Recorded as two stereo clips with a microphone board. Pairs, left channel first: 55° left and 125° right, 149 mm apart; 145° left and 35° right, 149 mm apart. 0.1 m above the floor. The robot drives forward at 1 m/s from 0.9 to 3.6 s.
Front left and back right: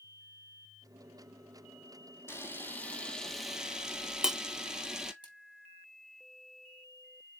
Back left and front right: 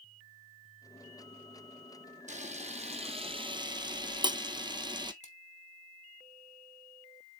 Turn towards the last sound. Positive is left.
turn(degrees=-175)